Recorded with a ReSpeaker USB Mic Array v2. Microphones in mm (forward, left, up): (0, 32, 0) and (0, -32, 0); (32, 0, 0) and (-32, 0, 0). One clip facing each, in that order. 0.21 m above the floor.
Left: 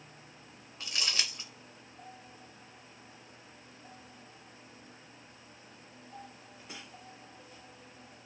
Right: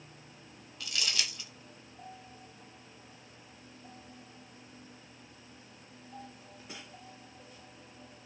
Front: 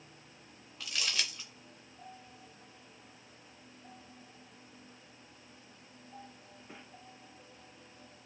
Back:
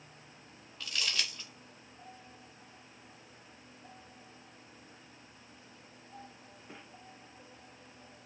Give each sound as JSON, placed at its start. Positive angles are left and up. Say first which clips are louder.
{"t": 0.8, "sound": "crumpling", "louder": "even, even", "azimuth_deg": 75, "distance_m": 0.9}